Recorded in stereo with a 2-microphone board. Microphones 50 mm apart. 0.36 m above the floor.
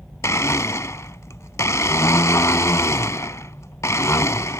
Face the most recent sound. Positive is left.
turn(degrees=75)  # may be behind; listen again after turning